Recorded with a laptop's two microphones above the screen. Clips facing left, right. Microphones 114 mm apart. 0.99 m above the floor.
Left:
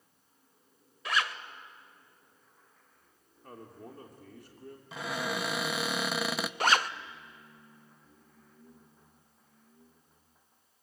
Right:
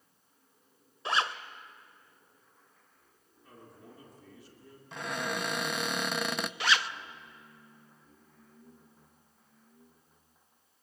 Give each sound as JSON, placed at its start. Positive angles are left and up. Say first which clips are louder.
{"t": 1.1, "sound": "a zipper", "louder": "right 1 dB", "side_deg": -25, "distance_m": 0.8}
{"t": 3.4, "sound": "a man speaking", "louder": "left 5 dB", "side_deg": 50, "distance_m": 3.0}
{"t": 4.9, "sound": "a cupboard door", "louder": "even", "side_deg": 5, "distance_m": 0.6}
{"t": 6.6, "sound": "a zipper", "louder": "left 4 dB", "side_deg": 45, "distance_m": 0.5}